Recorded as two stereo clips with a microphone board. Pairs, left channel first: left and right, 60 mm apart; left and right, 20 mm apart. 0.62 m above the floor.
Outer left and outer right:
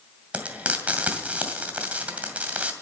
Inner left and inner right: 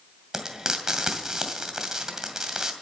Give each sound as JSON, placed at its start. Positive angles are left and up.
{"t": 0.3, "sound": "frying", "side_deg": -25, "distance_m": 2.0}